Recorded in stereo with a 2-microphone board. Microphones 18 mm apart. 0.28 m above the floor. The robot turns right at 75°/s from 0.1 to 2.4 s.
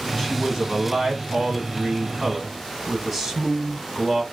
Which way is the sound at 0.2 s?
175° left.